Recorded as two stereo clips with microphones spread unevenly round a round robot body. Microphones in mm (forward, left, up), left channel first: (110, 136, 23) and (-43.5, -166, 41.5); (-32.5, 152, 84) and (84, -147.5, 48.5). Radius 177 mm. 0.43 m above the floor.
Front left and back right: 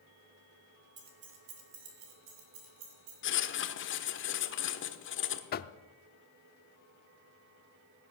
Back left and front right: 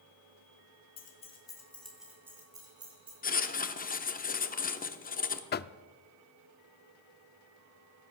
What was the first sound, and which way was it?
Keys jangling, 175° left.